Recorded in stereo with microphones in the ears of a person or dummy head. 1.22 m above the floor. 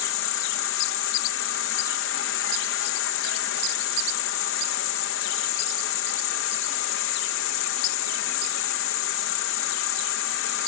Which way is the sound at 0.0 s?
65° left (ahead or behind).